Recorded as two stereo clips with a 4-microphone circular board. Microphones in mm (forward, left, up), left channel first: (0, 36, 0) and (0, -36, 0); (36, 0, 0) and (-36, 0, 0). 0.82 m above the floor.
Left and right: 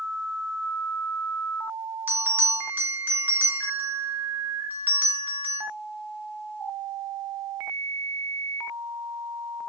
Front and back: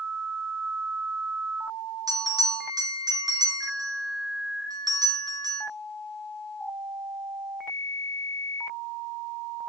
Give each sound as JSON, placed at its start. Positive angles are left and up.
{"t": 2.1, "sound": "a bell", "azimuth_deg": -155, "distance_m": 2.5}